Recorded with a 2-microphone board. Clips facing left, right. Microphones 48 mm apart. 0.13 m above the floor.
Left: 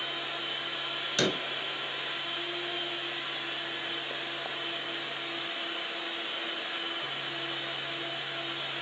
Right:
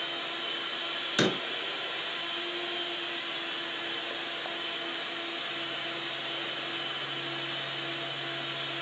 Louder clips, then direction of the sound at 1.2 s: Right 2 dB; 15° right (ahead or behind).